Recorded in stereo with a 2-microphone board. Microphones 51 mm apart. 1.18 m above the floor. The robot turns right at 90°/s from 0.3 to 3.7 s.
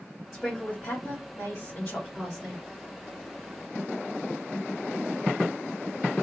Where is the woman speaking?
5° right, 2 m; by 2.6 s 155° right, 2 m.